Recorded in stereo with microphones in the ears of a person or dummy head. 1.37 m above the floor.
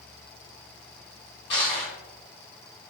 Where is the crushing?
35° left (ahead or behind), 1.3 m.